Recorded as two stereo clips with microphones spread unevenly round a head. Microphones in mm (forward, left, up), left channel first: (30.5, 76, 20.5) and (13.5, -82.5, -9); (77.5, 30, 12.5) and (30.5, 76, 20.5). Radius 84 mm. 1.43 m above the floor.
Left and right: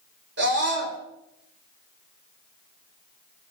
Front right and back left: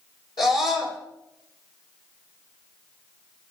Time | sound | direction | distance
0.4 | a scream | 85° right | 7 m